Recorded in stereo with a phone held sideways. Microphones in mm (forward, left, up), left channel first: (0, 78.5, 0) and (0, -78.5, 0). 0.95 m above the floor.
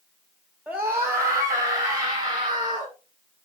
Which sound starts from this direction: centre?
A scream, at 0.7 s.